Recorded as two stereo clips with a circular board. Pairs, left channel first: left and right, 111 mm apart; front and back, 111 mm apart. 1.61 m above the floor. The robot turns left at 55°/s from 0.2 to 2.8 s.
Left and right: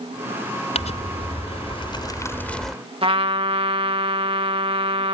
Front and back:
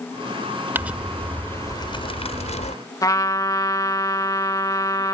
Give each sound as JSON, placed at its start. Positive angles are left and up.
{"t": 0.8, "sound": "crumpling", "azimuth_deg": 110}
{"t": 3.0, "sound": "a trumpet", "azimuth_deg": -55}